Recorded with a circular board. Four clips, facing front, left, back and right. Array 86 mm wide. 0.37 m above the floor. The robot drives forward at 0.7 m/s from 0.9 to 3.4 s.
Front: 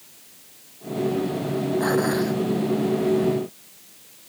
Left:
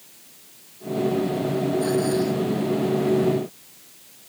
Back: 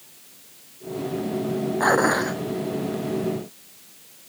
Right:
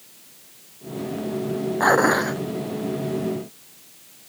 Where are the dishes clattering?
120° right.